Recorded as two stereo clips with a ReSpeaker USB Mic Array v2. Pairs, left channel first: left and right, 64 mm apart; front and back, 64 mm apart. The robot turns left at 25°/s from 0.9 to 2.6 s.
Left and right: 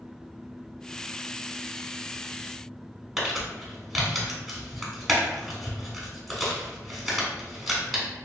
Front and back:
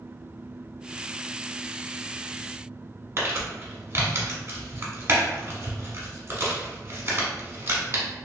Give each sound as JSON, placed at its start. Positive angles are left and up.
{"t": 3.2, "sound": "crumpling", "azimuth_deg": -175, "distance_m": 1.1}